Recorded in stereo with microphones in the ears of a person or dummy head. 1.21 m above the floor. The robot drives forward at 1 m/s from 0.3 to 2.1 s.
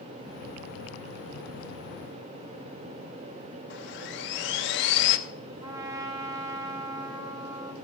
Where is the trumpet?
20° right (ahead or behind), 1.1 m.